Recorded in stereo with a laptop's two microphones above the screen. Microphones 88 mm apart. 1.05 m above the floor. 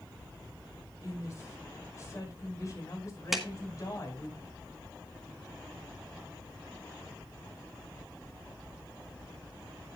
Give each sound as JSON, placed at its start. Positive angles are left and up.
{"t": 1.0, "sound": "a woman speaking", "side_deg": 35, "distance_m": 5.0}
{"t": 3.3, "sound": "a clap", "side_deg": -5, "distance_m": 1.2}